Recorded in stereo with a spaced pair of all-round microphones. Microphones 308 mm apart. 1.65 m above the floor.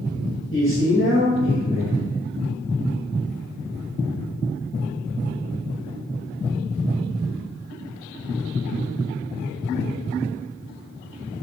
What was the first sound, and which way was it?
A man speaking, 40° left (ahead or behind).